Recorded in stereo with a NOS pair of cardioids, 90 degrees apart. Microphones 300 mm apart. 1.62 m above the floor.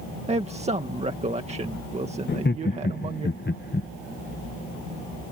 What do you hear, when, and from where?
0.3 s a man speaking: 20° right
2.3 s laughter: 35° left